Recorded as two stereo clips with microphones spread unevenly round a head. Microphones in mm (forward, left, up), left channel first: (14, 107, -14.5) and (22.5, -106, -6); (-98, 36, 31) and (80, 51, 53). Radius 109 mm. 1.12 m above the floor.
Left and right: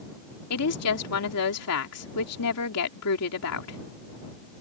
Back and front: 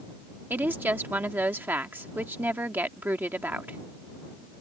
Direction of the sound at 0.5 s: 85° left.